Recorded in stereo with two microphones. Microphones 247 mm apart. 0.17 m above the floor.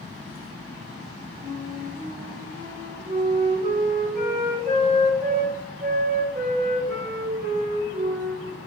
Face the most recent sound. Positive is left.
turn(degrees=-40)  # may be behind; listen again after turning